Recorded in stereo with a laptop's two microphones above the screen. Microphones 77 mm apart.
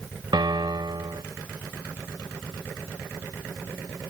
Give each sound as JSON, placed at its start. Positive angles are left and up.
{"t": 0.3, "sound": "a piano", "side_deg": -75}